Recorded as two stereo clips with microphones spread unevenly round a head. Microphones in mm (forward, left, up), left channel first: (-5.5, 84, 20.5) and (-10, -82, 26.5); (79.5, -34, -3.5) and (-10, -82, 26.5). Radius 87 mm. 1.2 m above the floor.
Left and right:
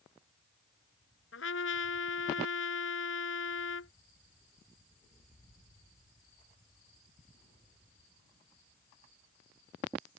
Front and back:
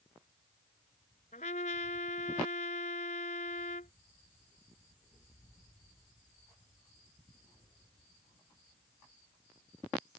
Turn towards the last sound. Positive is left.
turn(degrees=70)